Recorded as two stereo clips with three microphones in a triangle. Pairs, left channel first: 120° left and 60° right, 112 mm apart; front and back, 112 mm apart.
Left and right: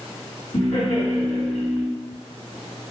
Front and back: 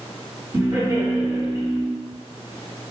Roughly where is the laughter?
Behind left.